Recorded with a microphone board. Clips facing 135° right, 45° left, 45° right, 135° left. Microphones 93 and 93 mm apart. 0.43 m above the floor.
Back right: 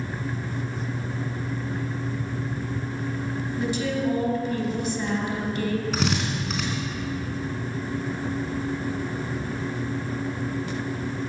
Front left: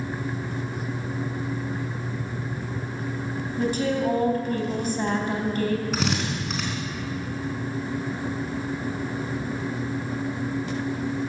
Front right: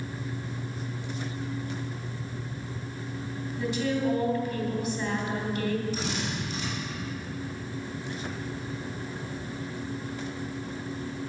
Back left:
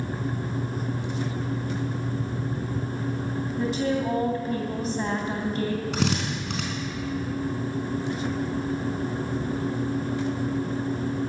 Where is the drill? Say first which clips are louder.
Even, back left 5 dB; 135° left, 3.5 m.